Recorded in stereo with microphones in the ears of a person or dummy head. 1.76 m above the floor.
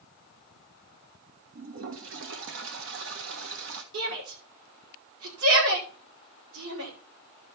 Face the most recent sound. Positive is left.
turn(degrees=-80)